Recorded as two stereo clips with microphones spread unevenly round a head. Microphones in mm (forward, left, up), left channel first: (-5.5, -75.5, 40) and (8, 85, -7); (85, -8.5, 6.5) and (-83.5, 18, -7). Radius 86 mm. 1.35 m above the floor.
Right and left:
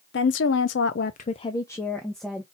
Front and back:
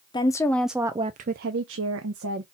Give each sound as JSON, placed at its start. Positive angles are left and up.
{"t": 0.1, "sound": "a woman speaking", "azimuth_deg": -75, "distance_m": 0.7}